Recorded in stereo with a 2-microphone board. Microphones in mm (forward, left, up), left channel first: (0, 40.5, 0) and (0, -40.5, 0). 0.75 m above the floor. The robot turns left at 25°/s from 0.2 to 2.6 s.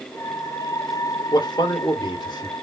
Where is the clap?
No clap in this recording.